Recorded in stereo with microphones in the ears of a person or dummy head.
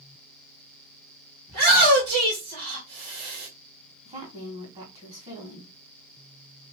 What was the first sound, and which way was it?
A shout, 75° right (ahead or behind).